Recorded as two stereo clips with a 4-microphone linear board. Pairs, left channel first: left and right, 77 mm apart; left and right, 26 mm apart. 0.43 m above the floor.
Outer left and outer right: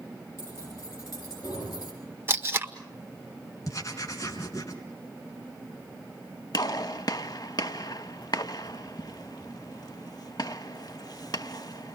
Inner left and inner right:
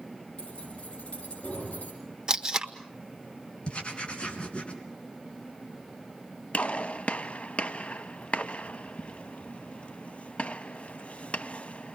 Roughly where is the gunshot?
Left.